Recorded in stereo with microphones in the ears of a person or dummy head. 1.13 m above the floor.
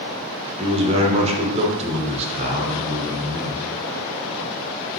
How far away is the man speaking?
About 0.5 m.